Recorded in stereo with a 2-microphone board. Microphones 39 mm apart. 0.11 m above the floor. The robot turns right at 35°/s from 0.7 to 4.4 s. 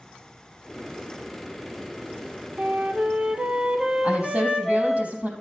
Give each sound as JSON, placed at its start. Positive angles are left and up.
{"t": 2.6, "sound": "a flute", "azimuth_deg": -65, "distance_m": 1.2}
{"t": 4.0, "sound": "a woman speaking", "side_deg": -40, "distance_m": 3.5}